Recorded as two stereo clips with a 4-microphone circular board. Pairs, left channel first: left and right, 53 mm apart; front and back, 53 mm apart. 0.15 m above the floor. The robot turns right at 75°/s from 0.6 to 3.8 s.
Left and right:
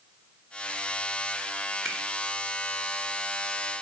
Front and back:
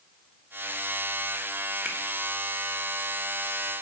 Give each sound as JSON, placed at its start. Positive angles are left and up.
{"t": 1.9, "sound": "a finger snap", "azimuth_deg": 180, "distance_m": 1.4}